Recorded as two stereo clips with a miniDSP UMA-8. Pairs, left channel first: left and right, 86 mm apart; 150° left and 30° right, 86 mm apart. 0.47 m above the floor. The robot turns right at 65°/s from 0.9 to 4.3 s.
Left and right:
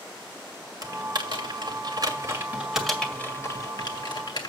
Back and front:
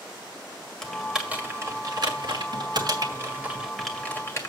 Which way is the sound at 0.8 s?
130° right.